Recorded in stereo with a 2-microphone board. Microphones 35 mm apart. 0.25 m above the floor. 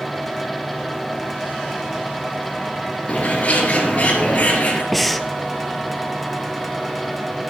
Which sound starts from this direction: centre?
Breathing, at 4.9 s.